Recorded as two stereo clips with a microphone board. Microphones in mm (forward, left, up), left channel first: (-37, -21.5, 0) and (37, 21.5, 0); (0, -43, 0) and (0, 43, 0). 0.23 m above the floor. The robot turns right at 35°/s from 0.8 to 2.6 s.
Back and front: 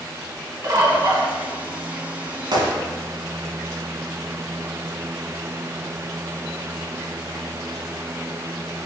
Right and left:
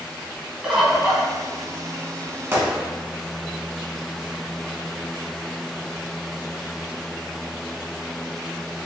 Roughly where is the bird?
Ahead.